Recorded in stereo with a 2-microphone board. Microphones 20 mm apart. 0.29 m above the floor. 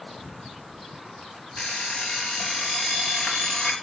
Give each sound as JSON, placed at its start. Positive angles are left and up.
{"t": 1.6, "sound": "an alarm clock", "side_deg": 50, "distance_m": 2.0}